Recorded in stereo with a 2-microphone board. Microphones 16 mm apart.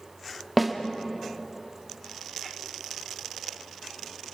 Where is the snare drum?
5° left (ahead or behind), 1.5 m.